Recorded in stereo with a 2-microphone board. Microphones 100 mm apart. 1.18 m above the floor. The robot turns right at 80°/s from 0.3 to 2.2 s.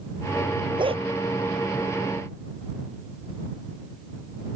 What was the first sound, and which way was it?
A dog barking, 50° right (ahead or behind).